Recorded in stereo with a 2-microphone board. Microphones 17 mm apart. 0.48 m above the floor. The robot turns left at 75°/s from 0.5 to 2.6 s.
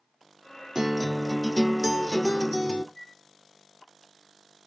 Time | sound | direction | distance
0.8 | a guitar | 140° right | 0.9 m
3.0 | a flute | 25° left (ahead or behind) | 6 m